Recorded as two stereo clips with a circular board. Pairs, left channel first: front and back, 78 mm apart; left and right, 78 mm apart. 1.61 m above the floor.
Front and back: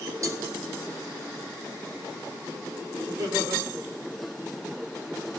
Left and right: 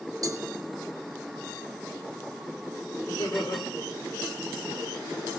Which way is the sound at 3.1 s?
125° left.